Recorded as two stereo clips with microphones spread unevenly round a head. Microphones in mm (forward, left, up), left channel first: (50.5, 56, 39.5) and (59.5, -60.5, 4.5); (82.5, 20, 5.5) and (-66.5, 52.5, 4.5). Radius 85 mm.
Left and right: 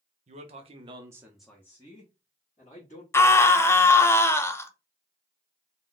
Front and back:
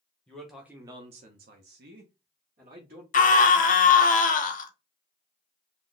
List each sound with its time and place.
0.3 s a man speaking: 95° right, 0.8 m; by 3.0 s 140° left, 1.3 m
3.1 s a scream: 20° left, 0.7 m